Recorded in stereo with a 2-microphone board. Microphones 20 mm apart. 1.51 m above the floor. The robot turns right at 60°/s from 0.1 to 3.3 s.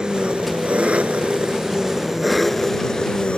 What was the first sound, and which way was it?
An engine running, 135° right.